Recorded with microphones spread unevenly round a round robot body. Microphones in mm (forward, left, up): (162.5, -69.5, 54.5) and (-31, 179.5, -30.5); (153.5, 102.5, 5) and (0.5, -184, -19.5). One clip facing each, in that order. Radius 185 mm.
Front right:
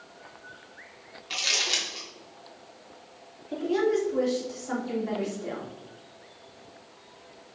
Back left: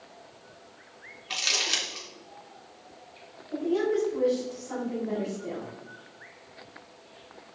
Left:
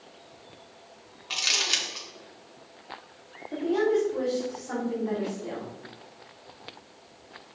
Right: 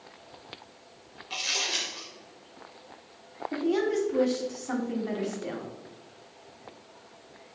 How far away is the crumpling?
About 3 m.